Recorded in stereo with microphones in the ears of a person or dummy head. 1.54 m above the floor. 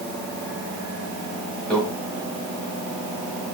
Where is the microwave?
5° left (ahead or behind), 1.7 m.